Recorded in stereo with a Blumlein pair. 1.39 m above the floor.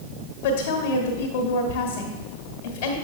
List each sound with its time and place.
0.4 s a woman speaking: 40° left, 1.9 m